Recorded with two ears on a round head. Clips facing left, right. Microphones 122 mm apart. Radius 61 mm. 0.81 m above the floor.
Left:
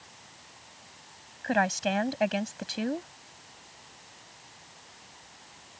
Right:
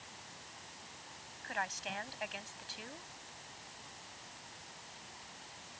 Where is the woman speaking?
75° left (ahead or behind).